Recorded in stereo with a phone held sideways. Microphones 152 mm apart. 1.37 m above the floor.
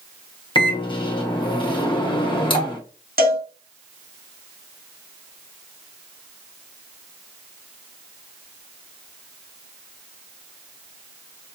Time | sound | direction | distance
0.6 | a microwave | 30° left (ahead or behind) | 0.9 m
3.2 | a cowbell | 75° right (ahead or behind) | 1.3 m